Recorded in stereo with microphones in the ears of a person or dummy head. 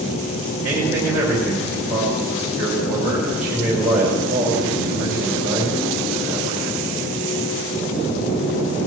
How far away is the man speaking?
About 4.5 m.